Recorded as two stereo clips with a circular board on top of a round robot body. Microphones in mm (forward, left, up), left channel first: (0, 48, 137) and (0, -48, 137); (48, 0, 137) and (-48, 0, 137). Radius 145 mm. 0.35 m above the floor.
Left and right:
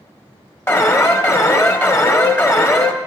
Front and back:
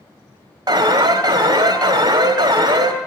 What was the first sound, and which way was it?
An alarm, 145° left.